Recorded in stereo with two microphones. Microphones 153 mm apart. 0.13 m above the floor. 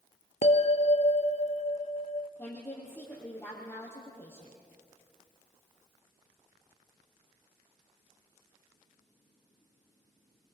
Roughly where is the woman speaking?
Centre.